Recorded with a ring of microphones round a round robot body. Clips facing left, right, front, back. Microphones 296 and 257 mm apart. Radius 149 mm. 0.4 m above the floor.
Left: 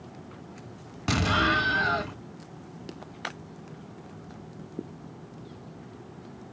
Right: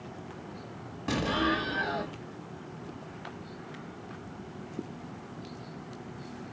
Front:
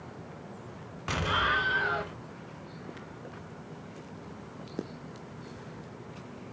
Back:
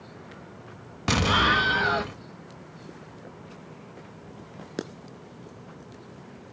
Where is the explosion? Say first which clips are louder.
Left 1 dB, back 9 dB; 145° left, 0.6 m.